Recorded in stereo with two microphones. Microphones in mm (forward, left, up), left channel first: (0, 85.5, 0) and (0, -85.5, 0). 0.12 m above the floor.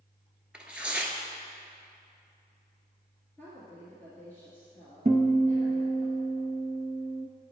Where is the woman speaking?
15° left (ahead or behind), 1.9 m.